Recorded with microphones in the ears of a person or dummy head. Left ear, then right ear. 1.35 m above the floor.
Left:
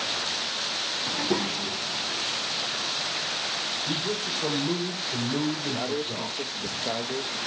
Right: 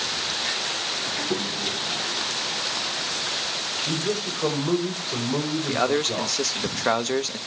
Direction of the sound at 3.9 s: 25° right (ahead or behind).